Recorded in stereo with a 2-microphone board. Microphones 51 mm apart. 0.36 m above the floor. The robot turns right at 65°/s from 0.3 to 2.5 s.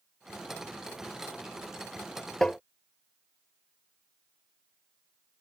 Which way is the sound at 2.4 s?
10° left (ahead or behind).